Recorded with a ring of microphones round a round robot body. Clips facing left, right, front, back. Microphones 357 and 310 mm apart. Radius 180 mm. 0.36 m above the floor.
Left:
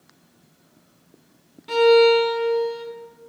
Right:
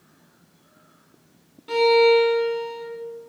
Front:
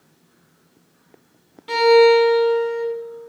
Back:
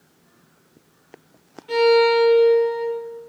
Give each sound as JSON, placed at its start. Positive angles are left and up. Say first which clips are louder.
{"t": 1.7, "sound": "a violin", "louder": "left 2 dB, front 3 dB", "azimuth_deg": 5, "distance_m": 1.2}